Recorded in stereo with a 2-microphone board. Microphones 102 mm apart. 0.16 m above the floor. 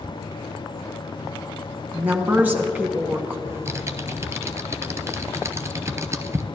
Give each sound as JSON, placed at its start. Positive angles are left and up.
{"t": 1.9, "sound": "a woman speaking", "side_deg": -20, "distance_m": 1.5}
{"t": 3.5, "sound": "typing on a keyboard", "side_deg": -25, "distance_m": 0.6}